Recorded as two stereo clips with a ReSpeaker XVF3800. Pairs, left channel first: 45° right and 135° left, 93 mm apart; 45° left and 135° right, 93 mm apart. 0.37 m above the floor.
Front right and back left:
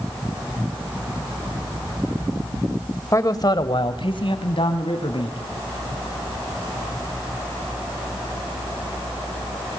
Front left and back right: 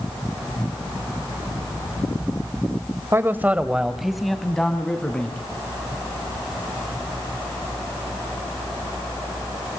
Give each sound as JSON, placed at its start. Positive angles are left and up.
{"t": 3.1, "sound": "a man speaking", "azimuth_deg": -85, "distance_m": 1.6}